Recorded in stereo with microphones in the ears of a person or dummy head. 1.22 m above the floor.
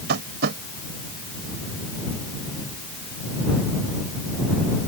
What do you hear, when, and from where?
0.1 s tapping: 65° right (ahead or behind)